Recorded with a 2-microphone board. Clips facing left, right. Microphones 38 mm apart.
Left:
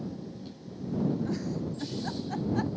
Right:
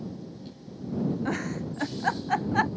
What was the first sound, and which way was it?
A giggle, 50° right (ahead or behind).